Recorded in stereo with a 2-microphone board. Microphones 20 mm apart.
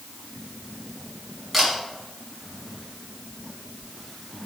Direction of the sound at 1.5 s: Centre (ahead or behind).